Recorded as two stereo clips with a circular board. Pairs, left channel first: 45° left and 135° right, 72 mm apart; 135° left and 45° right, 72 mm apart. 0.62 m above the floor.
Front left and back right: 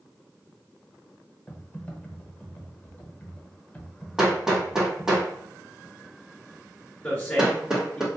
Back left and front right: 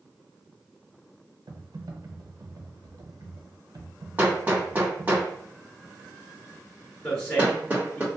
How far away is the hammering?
About 0.9 m.